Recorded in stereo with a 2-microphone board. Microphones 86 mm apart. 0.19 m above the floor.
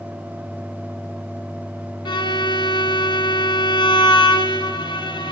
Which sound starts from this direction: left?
A violin, at 2.0 s.